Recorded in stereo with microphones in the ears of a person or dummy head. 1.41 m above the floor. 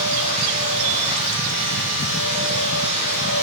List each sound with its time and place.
0.0 s a machine running: 45° left (ahead or behind), 2.5 m